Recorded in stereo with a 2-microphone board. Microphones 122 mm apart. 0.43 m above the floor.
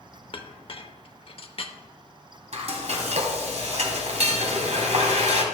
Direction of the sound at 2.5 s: 65° right (ahead or behind).